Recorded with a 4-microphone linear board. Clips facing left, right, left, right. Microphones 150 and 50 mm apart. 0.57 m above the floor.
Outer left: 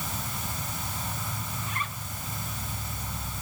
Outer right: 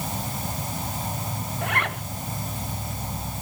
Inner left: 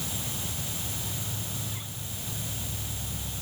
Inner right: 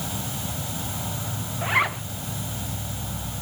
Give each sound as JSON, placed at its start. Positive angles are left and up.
{"t": 0.0, "sound": "an insect", "side_deg": -35}
{"t": 1.6, "sound": "a zipper", "side_deg": -70}